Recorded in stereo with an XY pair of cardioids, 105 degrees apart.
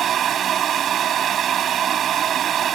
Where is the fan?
60° right.